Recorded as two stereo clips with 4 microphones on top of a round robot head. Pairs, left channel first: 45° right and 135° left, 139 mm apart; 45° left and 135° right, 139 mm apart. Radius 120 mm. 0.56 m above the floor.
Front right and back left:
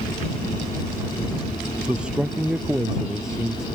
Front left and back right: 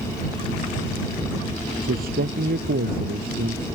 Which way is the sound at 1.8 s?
145° right.